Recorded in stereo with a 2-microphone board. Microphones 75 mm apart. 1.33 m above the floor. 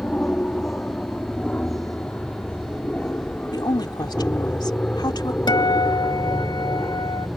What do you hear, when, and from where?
0.0 s an aircraft: 15° left (ahead or behind); by 7.4 s 25° left (ahead or behind)
3.5 s a woman speaking: 70° left (ahead or behind)
5.5 s a guitar: 80° left